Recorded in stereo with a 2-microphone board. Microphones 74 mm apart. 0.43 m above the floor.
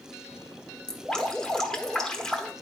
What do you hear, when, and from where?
0.9 s dripping: 10° left (ahead or behind), 1.1 m